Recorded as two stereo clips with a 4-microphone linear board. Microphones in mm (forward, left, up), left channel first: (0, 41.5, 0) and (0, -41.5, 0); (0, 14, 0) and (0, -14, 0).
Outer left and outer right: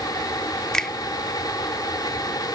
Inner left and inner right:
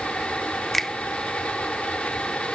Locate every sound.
0.7 s a finger snap: 5° left (ahead or behind)